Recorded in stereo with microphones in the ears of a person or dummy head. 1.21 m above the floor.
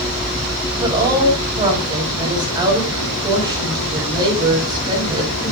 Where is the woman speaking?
25° right (ahead or behind), 6 m.